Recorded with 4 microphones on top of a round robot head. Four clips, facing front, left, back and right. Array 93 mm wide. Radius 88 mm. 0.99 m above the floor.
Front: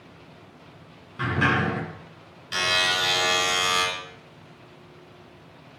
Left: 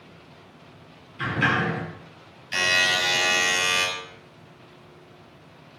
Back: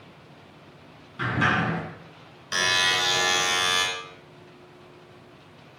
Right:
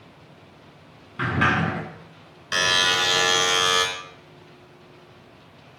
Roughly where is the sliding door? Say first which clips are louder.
Right 2 dB, front 1 dB; right.